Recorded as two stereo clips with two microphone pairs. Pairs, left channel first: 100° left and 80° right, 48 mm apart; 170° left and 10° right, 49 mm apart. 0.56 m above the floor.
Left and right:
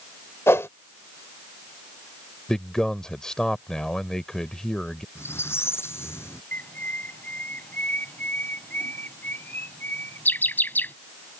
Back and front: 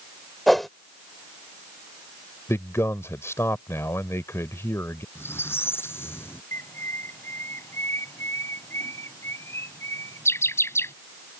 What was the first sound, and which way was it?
A whoosh, 85° left.